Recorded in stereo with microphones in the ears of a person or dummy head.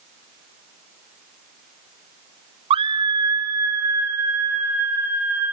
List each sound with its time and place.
2.7 s a scream: 30° right (ahead or behind), 0.6 m; by 5.5 s 10° right (ahead or behind), 3.5 m